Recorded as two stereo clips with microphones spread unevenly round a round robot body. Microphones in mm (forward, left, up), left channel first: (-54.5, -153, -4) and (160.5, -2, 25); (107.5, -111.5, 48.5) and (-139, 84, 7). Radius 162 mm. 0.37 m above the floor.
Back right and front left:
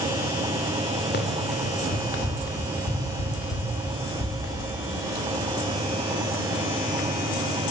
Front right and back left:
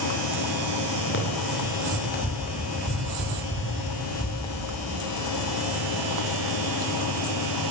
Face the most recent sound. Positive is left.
turn(degrees=-115)